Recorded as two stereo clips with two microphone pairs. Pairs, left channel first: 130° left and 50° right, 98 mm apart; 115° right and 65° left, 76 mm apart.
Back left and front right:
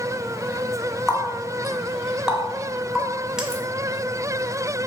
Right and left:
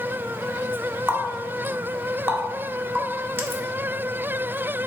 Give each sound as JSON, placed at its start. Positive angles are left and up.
{"t": 1.1, "sound": "a running tap", "azimuth_deg": 30, "distance_m": 0.6}